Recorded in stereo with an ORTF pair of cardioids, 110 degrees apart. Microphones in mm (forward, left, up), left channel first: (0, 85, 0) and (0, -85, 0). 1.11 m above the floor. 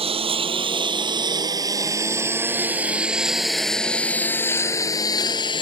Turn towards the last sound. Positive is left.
turn(degrees=30)